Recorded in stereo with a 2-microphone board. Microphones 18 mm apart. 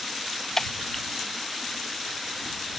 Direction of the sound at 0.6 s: 25° left (ahead or behind).